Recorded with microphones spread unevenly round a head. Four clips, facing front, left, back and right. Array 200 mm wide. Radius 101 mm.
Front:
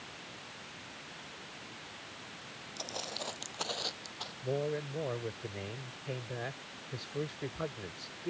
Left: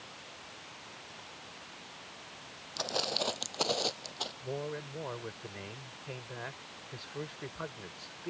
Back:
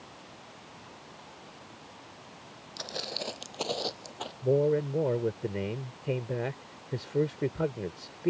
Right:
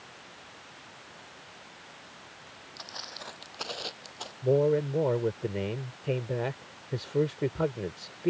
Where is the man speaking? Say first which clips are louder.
Right 16 dB, back 10 dB; 135° right.